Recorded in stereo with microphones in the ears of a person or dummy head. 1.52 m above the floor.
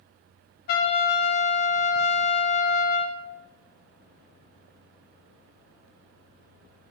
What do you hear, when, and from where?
0.7 s a trumpet: 50° left (ahead or behind), 0.5 m